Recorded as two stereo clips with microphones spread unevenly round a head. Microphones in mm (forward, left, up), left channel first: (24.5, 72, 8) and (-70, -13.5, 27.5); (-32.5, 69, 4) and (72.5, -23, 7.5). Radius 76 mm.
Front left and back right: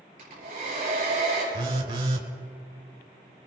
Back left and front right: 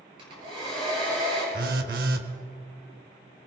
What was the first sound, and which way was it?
A hair dryer, 100° right.